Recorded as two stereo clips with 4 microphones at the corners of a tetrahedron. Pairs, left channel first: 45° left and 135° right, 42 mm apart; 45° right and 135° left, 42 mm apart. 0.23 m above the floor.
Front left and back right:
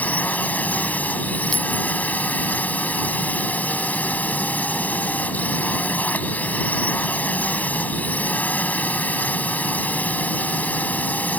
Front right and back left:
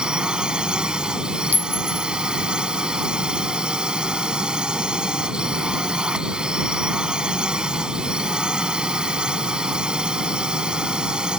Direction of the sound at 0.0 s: 75° left.